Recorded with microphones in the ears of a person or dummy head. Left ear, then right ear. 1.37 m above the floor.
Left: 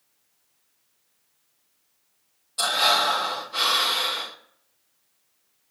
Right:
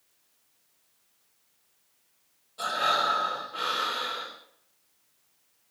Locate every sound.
2.6 s breathing: 45° left (ahead or behind), 2.5 m